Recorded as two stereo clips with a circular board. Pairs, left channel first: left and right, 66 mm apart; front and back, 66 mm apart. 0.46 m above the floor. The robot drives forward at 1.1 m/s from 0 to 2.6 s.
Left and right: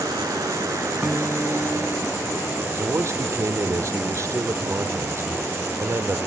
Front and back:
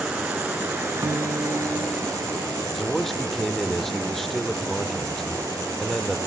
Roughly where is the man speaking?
Right.